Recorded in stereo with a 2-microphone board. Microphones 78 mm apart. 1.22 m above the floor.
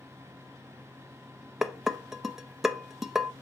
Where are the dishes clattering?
5° right (ahead or behind), 0.5 m.